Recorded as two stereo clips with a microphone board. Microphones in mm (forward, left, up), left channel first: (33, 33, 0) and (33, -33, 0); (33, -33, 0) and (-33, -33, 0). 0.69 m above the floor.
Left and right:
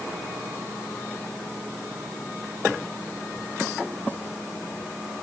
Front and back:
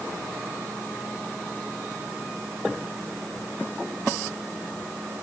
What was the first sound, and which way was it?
Only background noise.